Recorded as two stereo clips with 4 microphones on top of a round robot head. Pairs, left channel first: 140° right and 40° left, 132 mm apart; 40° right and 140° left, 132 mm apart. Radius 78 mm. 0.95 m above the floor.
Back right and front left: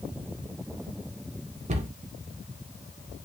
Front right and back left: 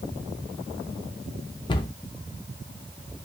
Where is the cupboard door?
10° left, 0.7 m.